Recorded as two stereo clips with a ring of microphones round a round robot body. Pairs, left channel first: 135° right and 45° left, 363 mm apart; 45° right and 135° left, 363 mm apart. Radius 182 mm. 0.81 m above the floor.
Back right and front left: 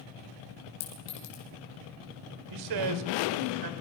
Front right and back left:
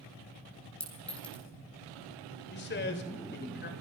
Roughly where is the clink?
Behind right.